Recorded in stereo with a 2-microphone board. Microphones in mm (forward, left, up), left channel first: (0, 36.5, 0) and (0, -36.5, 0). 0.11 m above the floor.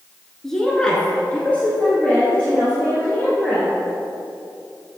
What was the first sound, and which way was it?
A woman speaking, 5° left (ahead or behind).